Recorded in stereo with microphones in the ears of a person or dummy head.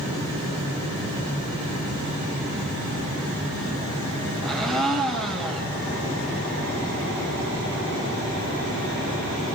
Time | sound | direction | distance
4.4 | a blender | 5° left (ahead or behind) | 4.5 m